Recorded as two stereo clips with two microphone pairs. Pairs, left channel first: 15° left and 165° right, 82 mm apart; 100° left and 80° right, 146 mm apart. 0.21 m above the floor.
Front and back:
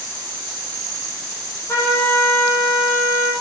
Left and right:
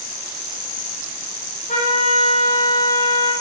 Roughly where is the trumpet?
Left.